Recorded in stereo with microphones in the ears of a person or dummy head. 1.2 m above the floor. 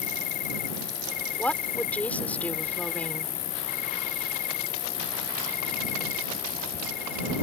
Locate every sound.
0.0 s an insect: 55° left (ahead or behind)
1.4 s a woman speaking: 5° left (ahead or behind)